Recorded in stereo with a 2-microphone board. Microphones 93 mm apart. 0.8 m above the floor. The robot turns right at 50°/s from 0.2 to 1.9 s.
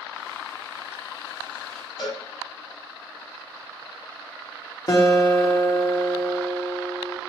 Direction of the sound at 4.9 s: 45° left (ahead or behind).